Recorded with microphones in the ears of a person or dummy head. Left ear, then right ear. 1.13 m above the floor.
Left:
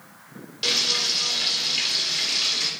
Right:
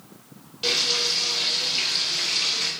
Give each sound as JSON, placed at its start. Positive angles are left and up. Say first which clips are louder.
{"t": 0.6, "sound": "frying", "louder": "even", "side_deg": 60, "distance_m": 3.5}